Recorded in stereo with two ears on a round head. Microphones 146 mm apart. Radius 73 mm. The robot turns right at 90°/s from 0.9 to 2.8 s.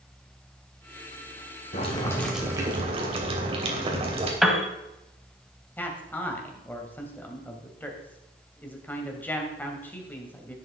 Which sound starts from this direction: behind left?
Boiling, at 1.7 s.